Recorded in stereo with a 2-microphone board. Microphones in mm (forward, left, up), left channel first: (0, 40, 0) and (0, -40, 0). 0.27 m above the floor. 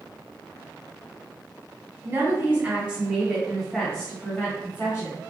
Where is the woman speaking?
30° right (ahead or behind), 1.7 m; by 5.2 s 35° left (ahead or behind), 1.7 m.